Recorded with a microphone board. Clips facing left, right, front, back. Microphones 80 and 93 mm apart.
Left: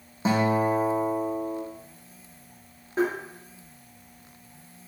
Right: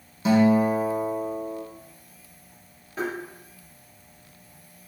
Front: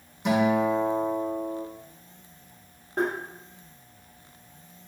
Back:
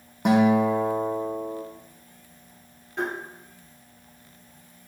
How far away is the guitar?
About 1.4 m.